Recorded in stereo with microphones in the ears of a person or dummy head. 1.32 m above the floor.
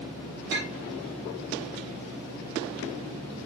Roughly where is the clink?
Right.